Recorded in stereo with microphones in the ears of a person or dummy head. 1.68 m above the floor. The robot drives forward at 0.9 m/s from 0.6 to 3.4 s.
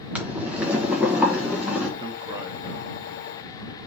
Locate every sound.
0.1 s boiling: 5° right (ahead or behind), 1.4 m
2.0 s a man speaking: 25° right (ahead or behind), 1.1 m; by 3.9 s 10° right (ahead or behind), 2.5 m